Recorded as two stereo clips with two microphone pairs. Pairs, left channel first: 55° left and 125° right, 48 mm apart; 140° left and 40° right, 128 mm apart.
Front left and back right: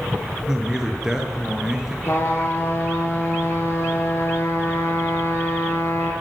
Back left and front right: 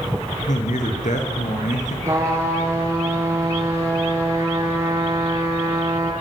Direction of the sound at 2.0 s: 30° left.